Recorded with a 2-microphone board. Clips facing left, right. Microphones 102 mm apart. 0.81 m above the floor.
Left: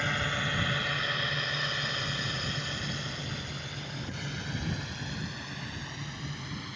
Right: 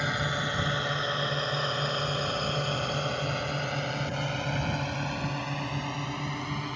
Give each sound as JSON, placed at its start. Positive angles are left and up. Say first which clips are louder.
{"t": 0.0, "sound": "a drone", "louder": "right 2 dB", "side_deg": -15}